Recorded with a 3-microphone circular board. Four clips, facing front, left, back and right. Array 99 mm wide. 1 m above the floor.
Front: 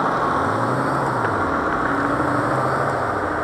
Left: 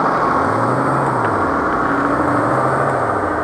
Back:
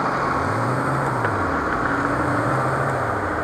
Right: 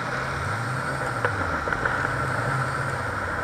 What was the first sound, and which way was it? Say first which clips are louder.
A vehicle: left 14 dB, front 2 dB; 80° left.